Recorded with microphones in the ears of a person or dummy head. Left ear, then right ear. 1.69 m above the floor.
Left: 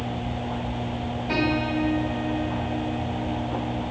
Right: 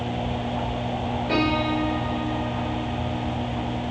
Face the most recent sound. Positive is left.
turn(degrees=0)  # may be behind; listen again after turning